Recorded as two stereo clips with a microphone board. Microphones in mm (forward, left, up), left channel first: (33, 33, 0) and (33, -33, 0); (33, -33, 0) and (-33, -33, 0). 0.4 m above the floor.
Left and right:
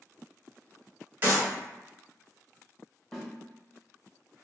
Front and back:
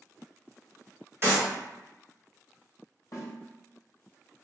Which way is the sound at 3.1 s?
Straight ahead.